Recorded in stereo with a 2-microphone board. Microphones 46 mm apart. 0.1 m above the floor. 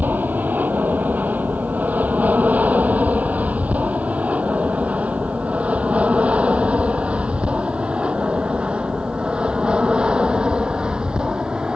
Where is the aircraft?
40° right (ahead or behind); by 11.8 s 20° right (ahead or behind).